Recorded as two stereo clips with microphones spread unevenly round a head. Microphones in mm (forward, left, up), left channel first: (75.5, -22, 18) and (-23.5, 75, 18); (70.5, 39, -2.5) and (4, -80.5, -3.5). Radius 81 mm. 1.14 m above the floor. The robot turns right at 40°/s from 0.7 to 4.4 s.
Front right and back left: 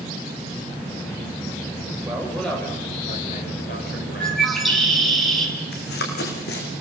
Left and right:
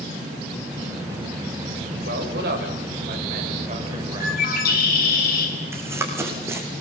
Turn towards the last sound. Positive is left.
turn(degrees=-50)